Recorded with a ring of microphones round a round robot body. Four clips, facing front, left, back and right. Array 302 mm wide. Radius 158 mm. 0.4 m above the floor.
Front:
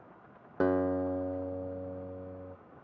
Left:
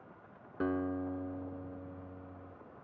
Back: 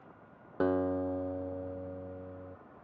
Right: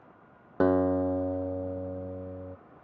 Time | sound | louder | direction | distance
0.6 | a guitar | right 11 dB, front 2 dB | 85° right | ?